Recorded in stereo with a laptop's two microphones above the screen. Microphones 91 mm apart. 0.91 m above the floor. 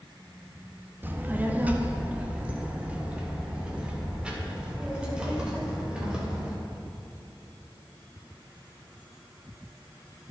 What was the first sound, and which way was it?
A child speaking, 20° right (ahead or behind).